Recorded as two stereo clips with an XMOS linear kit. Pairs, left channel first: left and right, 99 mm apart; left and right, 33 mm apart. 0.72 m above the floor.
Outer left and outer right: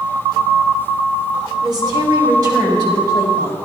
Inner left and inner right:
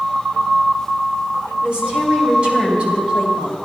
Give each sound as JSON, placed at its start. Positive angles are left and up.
{"t": 1.6, "sound": "a woman speaking", "side_deg": -45, "distance_m": 2.5}